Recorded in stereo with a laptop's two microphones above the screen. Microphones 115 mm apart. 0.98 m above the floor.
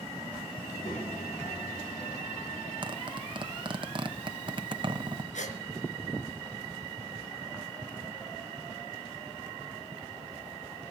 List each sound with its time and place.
0.6 s a child speaking: 80° left, 4 m
2.8 s a zipper: 40° right (ahead or behind), 0.9 m
5.3 s a gasp: 80° left, 4.5 m